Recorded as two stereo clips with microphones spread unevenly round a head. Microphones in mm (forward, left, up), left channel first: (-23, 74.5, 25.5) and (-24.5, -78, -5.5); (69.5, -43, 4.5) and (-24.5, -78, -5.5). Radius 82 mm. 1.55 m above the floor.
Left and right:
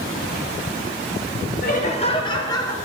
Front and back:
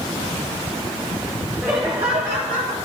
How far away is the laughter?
About 1.3 m.